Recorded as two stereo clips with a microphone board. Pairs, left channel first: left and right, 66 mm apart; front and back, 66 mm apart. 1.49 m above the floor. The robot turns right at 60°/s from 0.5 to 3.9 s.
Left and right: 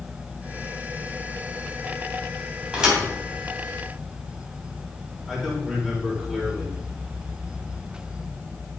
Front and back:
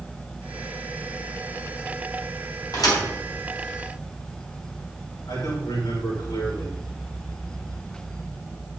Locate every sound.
2.7 s a thud: 20° right, 3.5 m; by 3.0 s straight ahead, 3.5 m
5.3 s a man speaking: 5° left, 5.5 m